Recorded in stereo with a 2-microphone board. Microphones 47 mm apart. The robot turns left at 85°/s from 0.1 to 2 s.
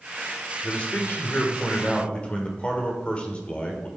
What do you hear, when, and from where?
0.6 s a man speaking: 155° left, 1.4 m; by 3.9 s 40° left, 1.4 m